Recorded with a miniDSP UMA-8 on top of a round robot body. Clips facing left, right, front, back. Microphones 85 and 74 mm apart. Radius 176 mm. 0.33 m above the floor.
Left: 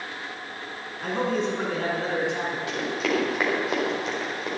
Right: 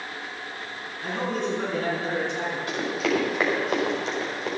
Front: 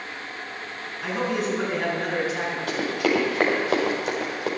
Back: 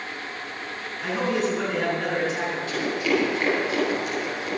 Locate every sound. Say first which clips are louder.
1.0 s a man speaking: left 2 dB, back 1 dB; 80° left, 6.5 m; by 2.6 s 75° left, 7 m
2.7 s running footsteps: right 2 dB, front 1 dB; 5° right, 5.5 m; by 4.5 s 5° left, 5.5 m